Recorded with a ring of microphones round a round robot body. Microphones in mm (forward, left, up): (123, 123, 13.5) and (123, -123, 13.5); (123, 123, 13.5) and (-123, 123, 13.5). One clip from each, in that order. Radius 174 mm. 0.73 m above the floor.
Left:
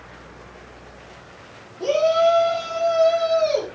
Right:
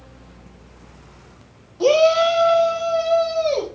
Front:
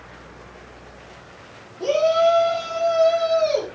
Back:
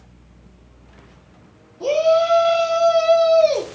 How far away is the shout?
About 0.7 m.